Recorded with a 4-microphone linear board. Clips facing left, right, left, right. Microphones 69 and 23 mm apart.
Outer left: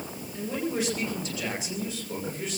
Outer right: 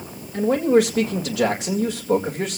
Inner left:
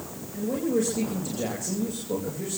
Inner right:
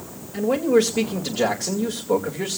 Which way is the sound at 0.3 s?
80° right.